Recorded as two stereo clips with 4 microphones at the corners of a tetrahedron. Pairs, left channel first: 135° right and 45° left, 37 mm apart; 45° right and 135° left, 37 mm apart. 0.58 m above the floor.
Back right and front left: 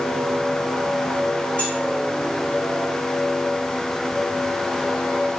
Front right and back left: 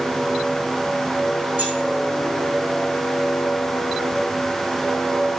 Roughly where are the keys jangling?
Behind.